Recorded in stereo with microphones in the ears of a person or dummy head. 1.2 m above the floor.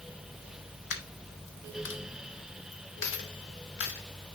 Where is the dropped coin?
70° left (ahead or behind), 1.3 m.